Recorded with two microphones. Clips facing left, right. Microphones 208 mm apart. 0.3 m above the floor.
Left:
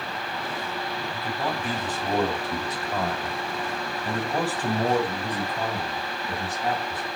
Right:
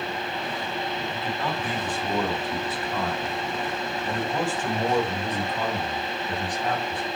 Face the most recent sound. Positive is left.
turn(degrees=20)  # may be behind; listen again after turning